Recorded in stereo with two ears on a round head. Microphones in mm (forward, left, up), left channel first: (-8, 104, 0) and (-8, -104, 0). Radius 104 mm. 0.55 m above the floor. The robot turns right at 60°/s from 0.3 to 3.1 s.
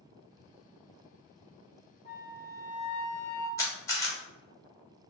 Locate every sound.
2.0 s a flute: 40° left, 0.7 m; by 3.5 s 100° left, 0.7 m
3.6 s a camera shutter: 15° left (ahead or behind), 0.7 m